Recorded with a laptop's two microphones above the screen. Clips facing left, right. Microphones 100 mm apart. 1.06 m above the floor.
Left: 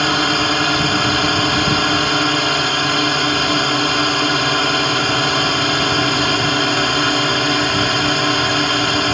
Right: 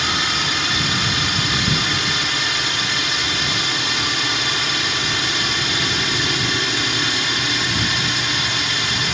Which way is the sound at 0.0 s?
55° left (ahead or behind).